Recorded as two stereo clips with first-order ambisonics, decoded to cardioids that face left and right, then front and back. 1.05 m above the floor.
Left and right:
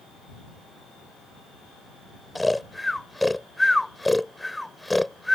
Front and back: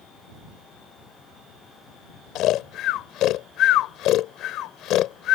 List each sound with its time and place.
2.4 s snoring: 5° left